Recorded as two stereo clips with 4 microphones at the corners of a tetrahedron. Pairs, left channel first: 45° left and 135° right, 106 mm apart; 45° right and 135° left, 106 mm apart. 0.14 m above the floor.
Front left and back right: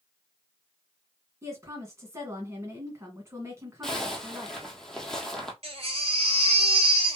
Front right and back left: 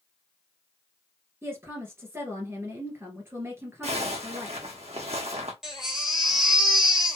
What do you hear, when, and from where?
1.4 s a woman speaking: 175° right, 1.8 m
3.8 s a zipper: 130° left, 1.4 m
5.6 s a baby crying: 140° right, 1.9 m